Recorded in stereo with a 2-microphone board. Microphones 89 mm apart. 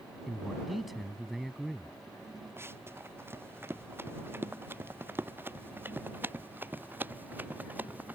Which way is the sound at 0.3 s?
Centre (ahead or behind).